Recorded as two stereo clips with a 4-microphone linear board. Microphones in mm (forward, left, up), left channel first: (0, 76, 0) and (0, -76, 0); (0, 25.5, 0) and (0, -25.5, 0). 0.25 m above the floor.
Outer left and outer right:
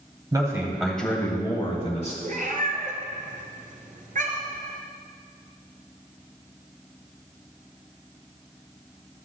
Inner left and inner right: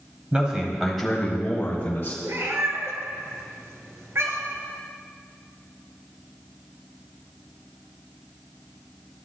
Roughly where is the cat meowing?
Right.